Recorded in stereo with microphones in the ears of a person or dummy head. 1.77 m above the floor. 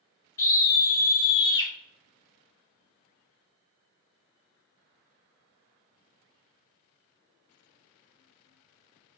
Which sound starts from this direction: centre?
A scream, at 0.4 s.